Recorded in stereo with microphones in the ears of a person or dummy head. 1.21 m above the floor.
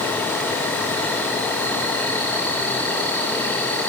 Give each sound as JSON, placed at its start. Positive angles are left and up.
{"t": 0.0, "sound": "an insect", "side_deg": 10, "distance_m": 2.5}